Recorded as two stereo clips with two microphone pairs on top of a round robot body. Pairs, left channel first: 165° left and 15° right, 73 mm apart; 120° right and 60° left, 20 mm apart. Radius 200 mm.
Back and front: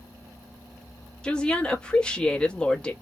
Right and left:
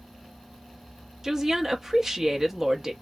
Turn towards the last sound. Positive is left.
turn(degrees=95)